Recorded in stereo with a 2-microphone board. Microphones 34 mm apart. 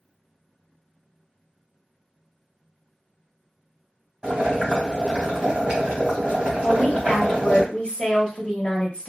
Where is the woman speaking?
40° left (ahead or behind), 1.1 m.